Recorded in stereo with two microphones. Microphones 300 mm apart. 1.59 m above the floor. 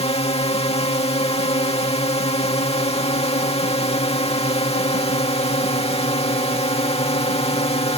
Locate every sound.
0.0 s a drone: 20° left (ahead or behind)